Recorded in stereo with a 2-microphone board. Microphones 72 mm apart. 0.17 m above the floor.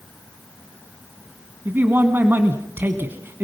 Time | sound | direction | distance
1.6 | a man speaking | 30° right (ahead or behind) | 1.5 m